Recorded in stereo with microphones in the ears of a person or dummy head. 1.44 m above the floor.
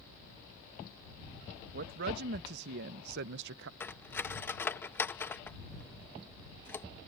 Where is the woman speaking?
60° right (ahead or behind); by 3.7 s 70° right (ahead or behind).